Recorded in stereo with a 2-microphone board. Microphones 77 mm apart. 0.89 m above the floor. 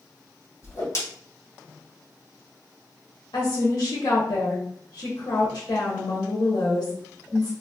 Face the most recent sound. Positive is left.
turn(degrees=70)  # may be behind; listen again after turning